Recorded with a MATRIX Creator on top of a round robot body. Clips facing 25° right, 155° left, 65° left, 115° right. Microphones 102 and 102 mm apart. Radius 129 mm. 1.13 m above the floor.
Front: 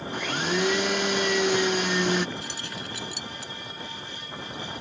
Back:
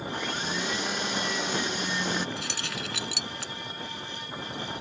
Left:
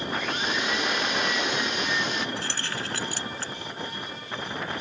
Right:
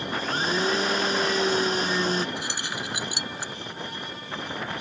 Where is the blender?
55° right.